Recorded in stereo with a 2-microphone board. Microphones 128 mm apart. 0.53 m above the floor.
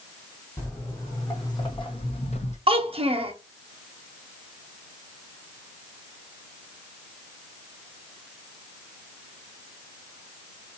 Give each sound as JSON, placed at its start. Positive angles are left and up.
{"t": 0.6, "sound": "footsteps", "side_deg": 15, "distance_m": 1.6}
{"t": 2.7, "sound": "a child speaking", "side_deg": -45, "distance_m": 0.7}